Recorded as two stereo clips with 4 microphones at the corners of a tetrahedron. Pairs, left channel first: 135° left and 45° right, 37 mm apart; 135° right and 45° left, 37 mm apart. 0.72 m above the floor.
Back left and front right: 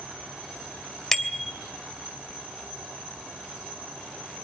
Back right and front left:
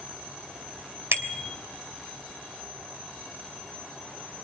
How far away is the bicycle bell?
About 2.5 m.